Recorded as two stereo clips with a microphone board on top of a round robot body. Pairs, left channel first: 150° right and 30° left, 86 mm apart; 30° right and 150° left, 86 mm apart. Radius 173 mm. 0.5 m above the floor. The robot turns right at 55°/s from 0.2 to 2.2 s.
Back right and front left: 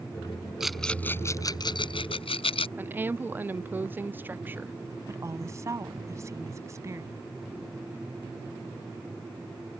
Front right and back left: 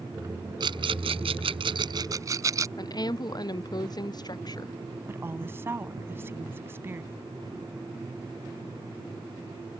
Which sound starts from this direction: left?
A woman speaking, at 5.1 s.